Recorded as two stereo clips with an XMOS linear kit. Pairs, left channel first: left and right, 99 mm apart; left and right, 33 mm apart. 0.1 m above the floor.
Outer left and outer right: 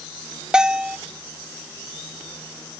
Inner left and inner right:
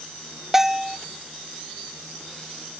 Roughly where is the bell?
Centre.